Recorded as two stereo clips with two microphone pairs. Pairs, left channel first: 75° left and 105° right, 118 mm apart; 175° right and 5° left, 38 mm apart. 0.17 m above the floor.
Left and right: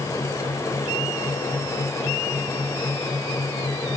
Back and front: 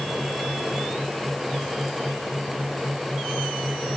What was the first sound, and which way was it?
Only background noise.